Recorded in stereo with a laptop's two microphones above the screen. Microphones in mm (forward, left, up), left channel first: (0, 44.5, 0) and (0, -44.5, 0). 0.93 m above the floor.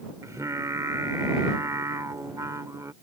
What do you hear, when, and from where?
0.2 s singing: 40° right (ahead or behind)